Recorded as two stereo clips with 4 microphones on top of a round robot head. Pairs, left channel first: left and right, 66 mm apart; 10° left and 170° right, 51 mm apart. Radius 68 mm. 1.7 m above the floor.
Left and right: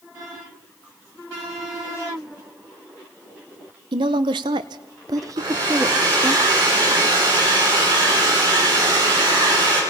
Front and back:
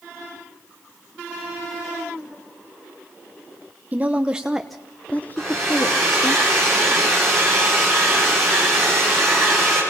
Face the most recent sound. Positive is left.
turn(degrees=-80)